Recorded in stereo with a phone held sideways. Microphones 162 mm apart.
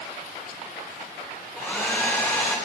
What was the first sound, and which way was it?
A hair dryer, 10° left (ahead or behind).